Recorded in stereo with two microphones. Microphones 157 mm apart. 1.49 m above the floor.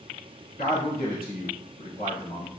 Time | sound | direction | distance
0.6 | a man speaking | 75° left (ahead or behind) | 2 m